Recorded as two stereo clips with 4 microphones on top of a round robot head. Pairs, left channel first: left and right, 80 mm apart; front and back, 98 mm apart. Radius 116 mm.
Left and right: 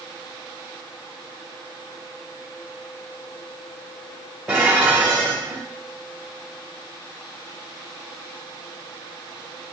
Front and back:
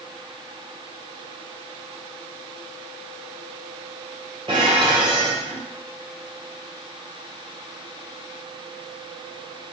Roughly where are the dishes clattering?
Behind.